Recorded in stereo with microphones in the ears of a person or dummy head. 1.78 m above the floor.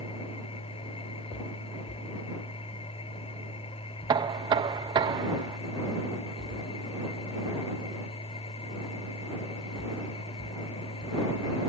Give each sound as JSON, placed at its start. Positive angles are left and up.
{"t": 0.0, "sound": "a machine running", "side_deg": 25}
{"t": 4.1, "sound": "knocking", "side_deg": -25}